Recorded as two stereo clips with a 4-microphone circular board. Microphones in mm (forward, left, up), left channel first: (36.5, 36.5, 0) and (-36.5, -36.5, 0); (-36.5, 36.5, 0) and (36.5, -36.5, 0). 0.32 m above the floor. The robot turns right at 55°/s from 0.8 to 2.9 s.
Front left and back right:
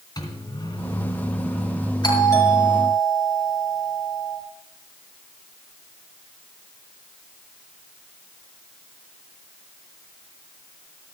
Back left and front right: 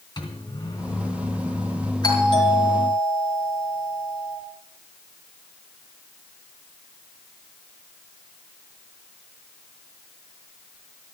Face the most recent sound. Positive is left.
turn(degrees=135)